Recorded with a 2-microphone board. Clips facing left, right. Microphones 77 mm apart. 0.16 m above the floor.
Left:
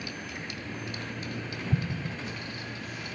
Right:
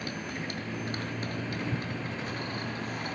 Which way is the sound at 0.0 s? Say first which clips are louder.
Right 3 dB; 45° right (ahead or behind).